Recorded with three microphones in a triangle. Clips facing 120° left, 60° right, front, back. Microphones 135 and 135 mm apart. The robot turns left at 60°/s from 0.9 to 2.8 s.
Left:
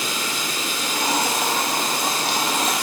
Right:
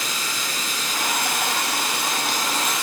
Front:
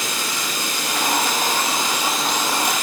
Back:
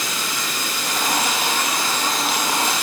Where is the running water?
10° right, 2.5 m; by 2.8 s 125° right, 2.5 m.